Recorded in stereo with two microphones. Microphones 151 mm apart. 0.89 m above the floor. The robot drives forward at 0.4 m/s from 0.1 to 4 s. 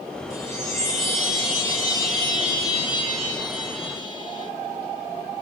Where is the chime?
20° left (ahead or behind), 5 m; by 4.5 s 30° left (ahead or behind), 3.5 m.